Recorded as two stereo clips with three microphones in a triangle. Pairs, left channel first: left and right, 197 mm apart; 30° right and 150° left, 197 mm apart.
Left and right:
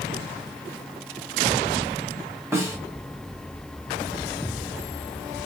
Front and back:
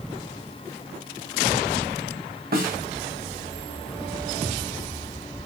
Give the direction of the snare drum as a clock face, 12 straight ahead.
6 o'clock.